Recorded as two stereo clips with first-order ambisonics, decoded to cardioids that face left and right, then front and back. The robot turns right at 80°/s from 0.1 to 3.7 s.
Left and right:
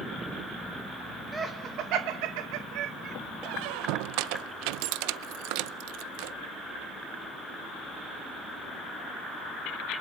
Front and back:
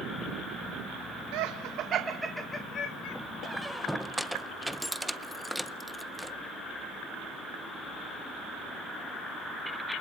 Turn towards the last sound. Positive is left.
turn(degrees=-90)